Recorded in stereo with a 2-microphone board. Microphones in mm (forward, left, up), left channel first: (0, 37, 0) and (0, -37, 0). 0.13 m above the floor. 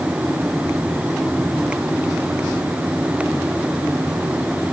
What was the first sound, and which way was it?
Only background noise.